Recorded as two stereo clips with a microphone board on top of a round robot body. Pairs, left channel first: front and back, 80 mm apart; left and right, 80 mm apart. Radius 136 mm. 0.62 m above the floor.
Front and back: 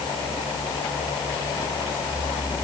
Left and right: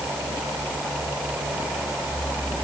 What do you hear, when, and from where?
Only background noise.